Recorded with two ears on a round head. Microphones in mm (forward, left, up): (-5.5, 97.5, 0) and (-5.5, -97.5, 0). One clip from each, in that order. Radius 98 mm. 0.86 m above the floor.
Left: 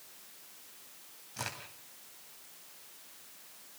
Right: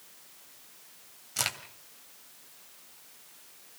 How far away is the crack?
About 2.5 m.